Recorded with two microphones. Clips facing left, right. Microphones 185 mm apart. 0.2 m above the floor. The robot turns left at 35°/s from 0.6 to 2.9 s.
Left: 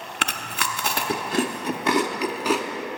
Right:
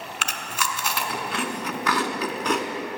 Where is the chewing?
55° left (ahead or behind), 0.6 m; by 2.6 s centre (ahead or behind), 0.6 m.